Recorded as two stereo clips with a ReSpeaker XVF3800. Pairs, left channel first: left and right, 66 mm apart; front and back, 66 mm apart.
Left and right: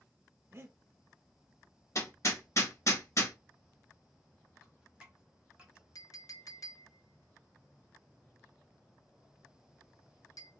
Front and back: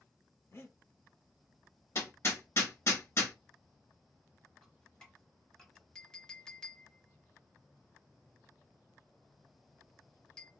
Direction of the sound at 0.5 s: 45° right.